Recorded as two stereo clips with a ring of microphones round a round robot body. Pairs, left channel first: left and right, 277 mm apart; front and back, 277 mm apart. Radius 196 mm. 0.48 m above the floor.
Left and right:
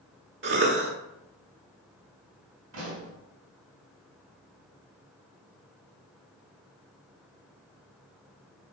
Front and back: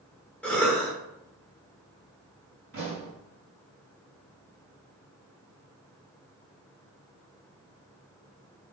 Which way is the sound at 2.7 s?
125° right.